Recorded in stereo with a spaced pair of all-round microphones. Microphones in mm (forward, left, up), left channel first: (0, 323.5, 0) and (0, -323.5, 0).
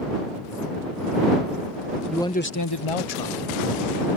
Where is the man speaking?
Centre (ahead or behind); by 4.1 s 75° left (ahead or behind).